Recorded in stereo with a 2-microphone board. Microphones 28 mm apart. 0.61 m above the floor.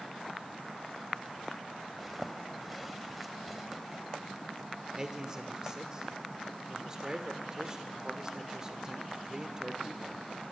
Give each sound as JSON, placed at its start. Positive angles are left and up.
{"t": 2.0, "sound": "a zipper", "side_deg": -5, "distance_m": 1.4}
{"t": 4.9, "sound": "a man speaking", "side_deg": -25, "distance_m": 1.9}